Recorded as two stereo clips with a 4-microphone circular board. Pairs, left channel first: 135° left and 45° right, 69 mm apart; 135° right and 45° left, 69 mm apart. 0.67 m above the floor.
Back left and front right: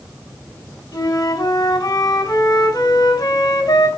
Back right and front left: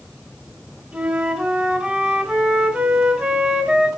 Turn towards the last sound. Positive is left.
turn(degrees=120)